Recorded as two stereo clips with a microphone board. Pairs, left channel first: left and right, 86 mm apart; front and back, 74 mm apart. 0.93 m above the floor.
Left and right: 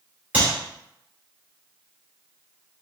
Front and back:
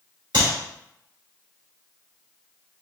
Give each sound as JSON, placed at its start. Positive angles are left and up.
{"t": 0.3, "sound": "a clap", "azimuth_deg": -160, "distance_m": 2.0}